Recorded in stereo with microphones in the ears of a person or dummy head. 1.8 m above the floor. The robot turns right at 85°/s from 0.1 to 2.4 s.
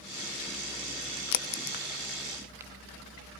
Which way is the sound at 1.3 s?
65° left (ahead or behind).